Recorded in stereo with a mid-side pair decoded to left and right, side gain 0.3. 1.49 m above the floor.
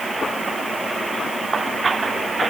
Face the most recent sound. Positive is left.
No sound to turn to.